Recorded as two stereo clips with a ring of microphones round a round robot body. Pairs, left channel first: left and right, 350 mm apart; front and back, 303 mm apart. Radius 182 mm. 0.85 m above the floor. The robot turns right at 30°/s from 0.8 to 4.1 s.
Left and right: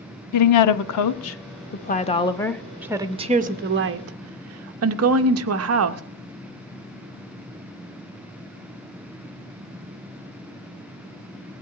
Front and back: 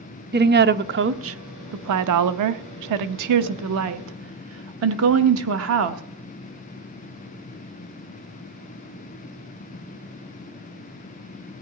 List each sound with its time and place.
0.3 s a woman speaking: 125° left, 0.9 m; by 6.0 s 135° right, 0.9 m